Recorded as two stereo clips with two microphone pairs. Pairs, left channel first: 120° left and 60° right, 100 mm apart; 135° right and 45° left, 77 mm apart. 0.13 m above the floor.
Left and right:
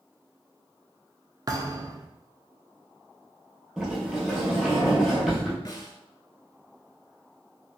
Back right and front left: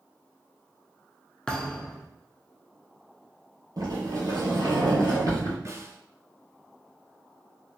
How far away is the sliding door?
About 1.4 m.